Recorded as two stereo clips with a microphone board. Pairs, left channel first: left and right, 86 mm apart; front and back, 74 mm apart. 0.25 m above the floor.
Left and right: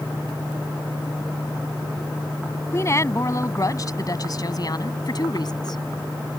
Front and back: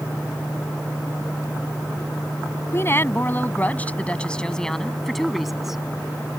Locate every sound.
2.7 s a woman speaking: 45° left; by 5.8 s 95° left